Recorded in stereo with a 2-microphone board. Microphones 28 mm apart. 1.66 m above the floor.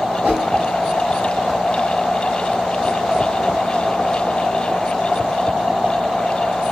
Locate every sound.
0.2 s a whoosh: 45° right (ahead or behind), 2 m